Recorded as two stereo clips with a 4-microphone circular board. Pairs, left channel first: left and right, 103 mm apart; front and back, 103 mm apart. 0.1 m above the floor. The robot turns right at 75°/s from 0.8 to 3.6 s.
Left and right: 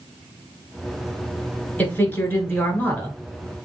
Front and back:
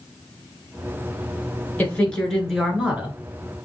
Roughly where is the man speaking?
Ahead left.